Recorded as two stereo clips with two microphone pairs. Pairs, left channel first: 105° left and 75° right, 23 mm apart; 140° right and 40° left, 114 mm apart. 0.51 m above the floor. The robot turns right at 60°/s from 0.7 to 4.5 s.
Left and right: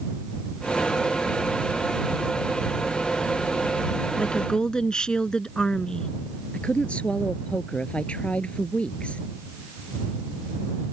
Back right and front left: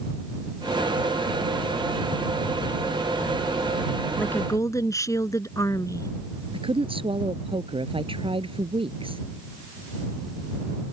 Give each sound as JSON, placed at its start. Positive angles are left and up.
{"t": 4.2, "sound": "a woman speaking", "azimuth_deg": 140}
{"t": 6.5, "sound": "a woman speaking", "azimuth_deg": 80}